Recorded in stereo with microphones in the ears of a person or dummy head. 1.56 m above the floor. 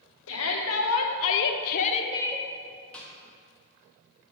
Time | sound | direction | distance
0.3 | a shout | 75° left (ahead or behind) | 1.1 m
2.9 | a snare drum | 10° left (ahead or behind) | 1.4 m